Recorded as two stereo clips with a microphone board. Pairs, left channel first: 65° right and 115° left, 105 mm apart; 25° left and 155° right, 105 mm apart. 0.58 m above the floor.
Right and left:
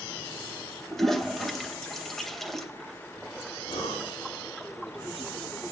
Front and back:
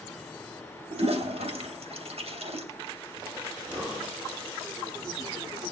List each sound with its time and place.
0.9 s a toilet flushing: 155° right, 2.5 m
3.7 s breathing: 95° right, 10 m